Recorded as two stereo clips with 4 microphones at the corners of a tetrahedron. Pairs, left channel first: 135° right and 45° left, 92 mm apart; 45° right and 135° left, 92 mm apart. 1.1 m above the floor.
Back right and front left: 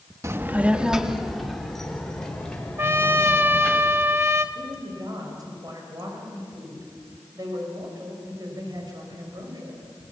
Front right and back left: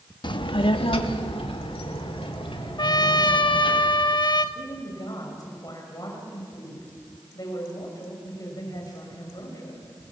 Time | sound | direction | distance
0.2 | a child speaking | 10° right | 1.0 m
2.8 | a trumpet | 15° right | 1.0 m
4.5 | a woman speaking | straight ahead | 5.5 m